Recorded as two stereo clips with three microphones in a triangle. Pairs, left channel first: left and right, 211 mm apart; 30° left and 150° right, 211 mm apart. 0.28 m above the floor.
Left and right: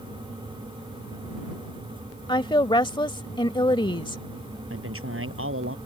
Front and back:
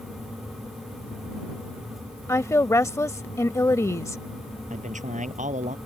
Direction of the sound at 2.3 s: 80° left.